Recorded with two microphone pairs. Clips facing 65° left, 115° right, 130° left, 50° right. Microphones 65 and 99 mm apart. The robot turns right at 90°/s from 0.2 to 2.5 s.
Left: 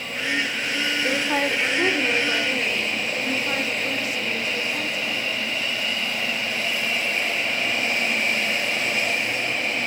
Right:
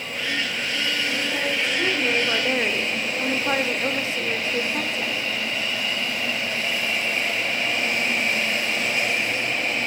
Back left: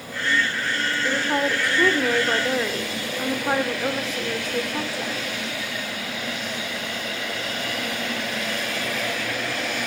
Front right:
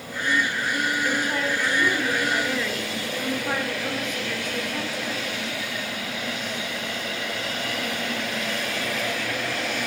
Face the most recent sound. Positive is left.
turn(degrees=-175)